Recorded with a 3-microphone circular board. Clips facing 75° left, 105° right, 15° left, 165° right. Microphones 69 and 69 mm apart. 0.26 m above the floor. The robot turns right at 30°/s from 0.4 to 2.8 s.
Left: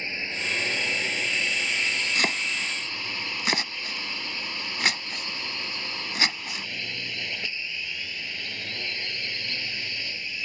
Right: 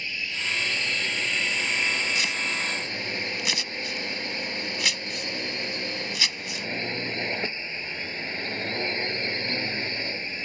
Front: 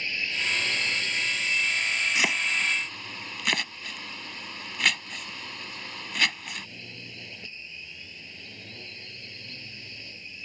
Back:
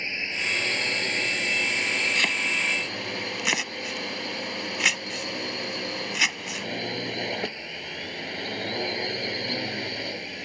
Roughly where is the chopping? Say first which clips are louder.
Left 1 dB, back 1 dB; left.